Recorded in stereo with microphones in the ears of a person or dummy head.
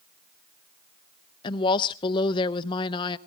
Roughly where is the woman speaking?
Left.